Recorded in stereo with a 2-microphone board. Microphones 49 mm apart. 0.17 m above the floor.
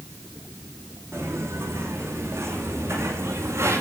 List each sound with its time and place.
1.1 s footsteps: 55° right (ahead or behind), 9.5 m; by 3.8 s 60° right (ahead or behind), 7.5 m